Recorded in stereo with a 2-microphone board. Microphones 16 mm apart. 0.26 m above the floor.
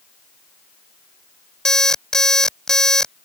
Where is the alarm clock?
35° left (ahead or behind).